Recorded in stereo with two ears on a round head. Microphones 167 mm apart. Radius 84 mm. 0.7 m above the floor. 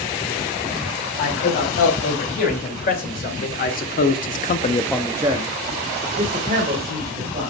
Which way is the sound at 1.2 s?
45° left (ahead or behind).